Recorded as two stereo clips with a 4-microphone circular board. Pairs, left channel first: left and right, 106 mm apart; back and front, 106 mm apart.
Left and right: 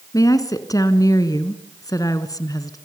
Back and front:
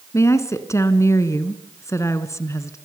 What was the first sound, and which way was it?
A woman speaking, 130° left.